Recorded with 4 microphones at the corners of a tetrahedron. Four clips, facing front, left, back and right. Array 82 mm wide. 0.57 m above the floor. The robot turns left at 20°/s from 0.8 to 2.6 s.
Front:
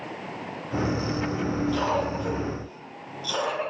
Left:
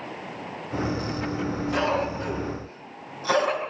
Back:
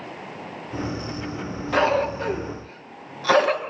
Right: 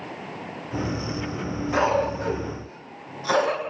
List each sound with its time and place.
1.7 s a cough: 160° right, 8.5 m; by 3.7 s straight behind, 8.5 m